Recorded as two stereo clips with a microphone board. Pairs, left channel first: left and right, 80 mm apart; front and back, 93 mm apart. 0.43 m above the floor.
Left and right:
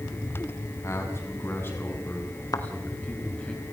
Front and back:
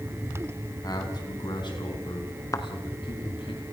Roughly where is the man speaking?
Ahead left.